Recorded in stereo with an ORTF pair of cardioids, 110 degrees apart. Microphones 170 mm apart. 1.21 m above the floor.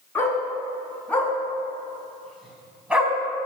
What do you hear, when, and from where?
0.1 s a dog barking: 15° left, 6 m; by 3.1 s 10° right, 4 m